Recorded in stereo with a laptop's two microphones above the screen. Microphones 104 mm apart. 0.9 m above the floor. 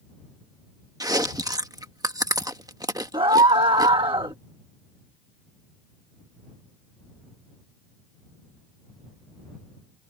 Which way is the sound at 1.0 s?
35° right (ahead or behind).